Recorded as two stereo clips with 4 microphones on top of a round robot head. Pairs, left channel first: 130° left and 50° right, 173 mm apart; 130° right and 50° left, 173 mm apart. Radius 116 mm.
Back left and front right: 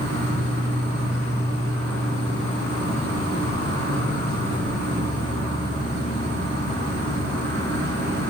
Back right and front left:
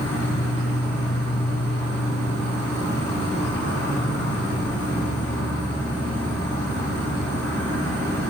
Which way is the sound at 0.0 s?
50° right.